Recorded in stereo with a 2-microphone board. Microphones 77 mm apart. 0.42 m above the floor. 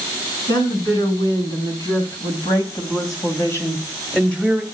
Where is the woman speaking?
75° left (ahead or behind), 5.5 m; by 4.6 s centre (ahead or behind), 2.5 m.